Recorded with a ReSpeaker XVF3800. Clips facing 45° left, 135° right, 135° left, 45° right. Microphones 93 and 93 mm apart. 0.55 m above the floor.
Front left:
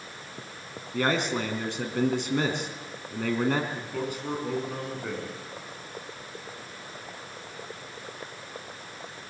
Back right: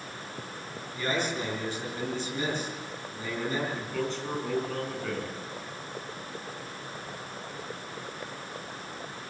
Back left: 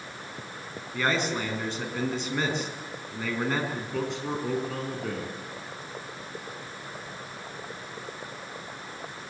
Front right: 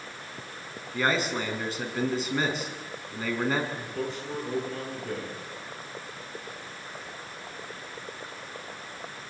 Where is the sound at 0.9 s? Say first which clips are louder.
Front left 4 dB, even; 40° left, 5.5 m.